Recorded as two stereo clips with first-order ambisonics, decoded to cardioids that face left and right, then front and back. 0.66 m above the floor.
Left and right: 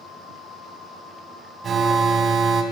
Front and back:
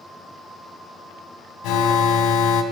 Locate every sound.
1.6 s an alarm: 25° right, 3 m